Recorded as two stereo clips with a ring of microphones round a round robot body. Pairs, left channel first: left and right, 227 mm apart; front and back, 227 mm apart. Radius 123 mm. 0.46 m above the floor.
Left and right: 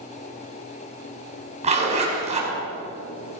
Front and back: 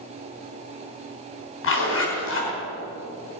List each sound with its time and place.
1.6 s a zipper: 30° right, 4.5 m